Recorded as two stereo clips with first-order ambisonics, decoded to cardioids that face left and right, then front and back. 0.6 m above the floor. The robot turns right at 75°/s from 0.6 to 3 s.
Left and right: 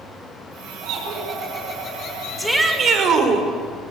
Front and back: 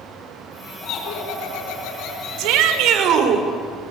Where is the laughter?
55° right, 5 m; by 3.2 s 110° left, 5 m.